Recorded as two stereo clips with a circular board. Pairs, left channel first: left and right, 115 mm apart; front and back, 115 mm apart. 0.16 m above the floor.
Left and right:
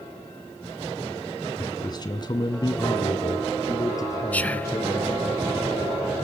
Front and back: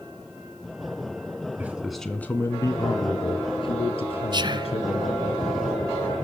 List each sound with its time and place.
1.6 s a man speaking: 115° left, 1.5 m; by 5.3 s 25° left, 5 m
4.3 s whispering: 160° left, 1.5 m